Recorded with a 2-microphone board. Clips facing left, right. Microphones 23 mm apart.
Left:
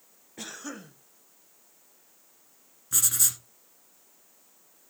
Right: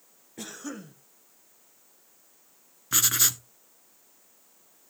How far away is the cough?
About 1.2 m.